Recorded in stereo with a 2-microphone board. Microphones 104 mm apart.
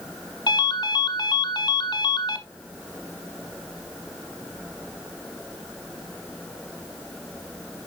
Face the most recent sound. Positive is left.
turn(degrees=50)  # may be behind; listen again after turning